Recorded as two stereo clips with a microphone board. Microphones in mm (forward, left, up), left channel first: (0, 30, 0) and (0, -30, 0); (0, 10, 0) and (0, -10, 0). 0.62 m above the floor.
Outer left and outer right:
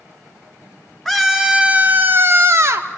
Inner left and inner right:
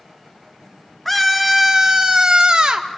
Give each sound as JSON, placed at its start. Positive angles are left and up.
{"t": 1.1, "sound": "a scream", "side_deg": 5, "distance_m": 0.8}